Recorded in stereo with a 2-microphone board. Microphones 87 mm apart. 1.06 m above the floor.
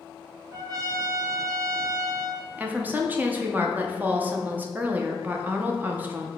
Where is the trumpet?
45° right (ahead or behind), 0.7 m.